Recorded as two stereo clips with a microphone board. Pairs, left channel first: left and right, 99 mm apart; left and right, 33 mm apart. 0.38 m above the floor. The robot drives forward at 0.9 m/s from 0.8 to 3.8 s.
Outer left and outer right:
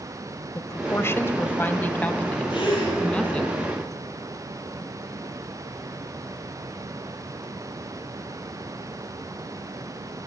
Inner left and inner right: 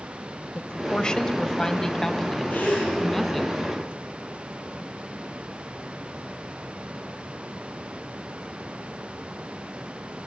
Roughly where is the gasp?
Left.